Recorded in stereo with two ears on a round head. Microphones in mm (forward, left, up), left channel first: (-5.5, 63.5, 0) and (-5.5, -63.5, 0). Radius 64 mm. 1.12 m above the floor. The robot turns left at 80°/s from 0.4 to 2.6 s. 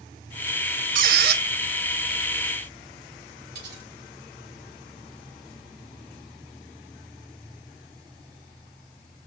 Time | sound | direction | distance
0.9 | a squeak | 65° right | 0.8 m
3.5 | cutlery clinking | 80° right | 4.5 m